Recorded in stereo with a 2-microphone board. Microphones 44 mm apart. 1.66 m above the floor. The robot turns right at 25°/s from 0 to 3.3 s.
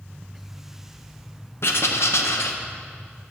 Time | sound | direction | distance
1.6 | writing | 65° left (ahead or behind) | 0.7 m